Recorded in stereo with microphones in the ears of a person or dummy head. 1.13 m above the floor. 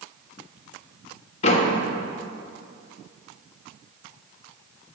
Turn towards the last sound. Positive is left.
turn(degrees=40)  # may be behind; listen again after turning